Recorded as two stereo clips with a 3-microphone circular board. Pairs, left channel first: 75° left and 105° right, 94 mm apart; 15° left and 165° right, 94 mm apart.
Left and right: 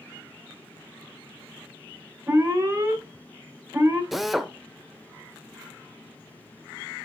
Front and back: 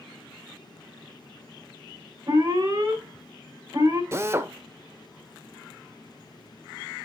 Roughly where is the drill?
Behind.